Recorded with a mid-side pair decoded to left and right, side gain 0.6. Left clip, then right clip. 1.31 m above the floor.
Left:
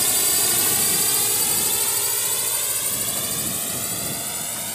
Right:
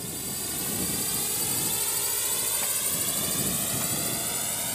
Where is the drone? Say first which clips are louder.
Left 13 dB; 65° left; by 4.8 s 10° left.